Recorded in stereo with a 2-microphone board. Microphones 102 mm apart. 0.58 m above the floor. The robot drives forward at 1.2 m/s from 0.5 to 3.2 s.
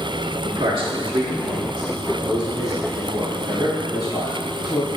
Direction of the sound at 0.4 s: 50° right (ahead or behind).